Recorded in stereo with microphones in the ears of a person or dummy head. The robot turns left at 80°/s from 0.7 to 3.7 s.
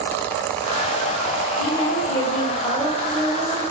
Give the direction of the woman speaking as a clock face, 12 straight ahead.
9 o'clock.